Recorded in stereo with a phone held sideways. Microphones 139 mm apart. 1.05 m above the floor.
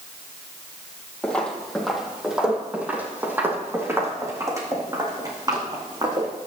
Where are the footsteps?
10° left (ahead or behind), 2.5 m; by 6.3 s 30° right (ahead or behind), 4.5 m.